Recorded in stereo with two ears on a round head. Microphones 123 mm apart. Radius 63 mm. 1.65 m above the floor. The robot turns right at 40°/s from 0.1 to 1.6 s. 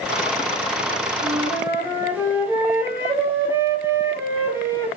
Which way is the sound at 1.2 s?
30° right (ahead or behind).